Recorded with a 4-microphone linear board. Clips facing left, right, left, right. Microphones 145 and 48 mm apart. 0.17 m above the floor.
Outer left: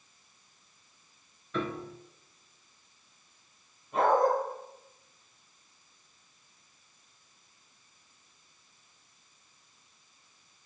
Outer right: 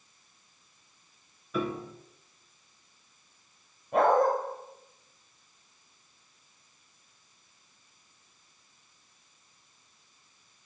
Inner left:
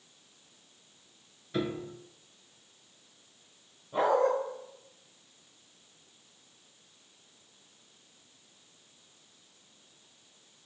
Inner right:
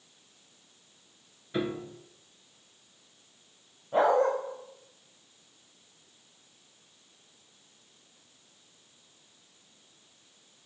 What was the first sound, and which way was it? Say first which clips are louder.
A piano: outer right 2 dB, inner right 1 dB; 10° right (ahead or behind).